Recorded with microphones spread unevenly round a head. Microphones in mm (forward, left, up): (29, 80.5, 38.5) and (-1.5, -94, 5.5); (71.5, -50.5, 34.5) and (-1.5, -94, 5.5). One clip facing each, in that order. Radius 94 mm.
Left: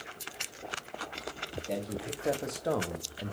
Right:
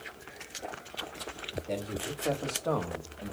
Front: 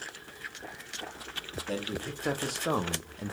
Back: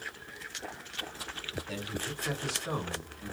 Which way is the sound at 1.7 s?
10° right.